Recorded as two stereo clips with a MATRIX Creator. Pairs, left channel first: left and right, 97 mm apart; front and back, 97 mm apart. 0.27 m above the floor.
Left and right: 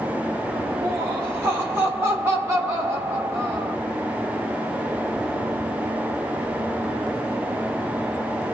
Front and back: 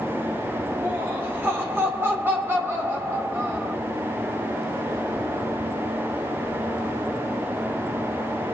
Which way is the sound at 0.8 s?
130° right.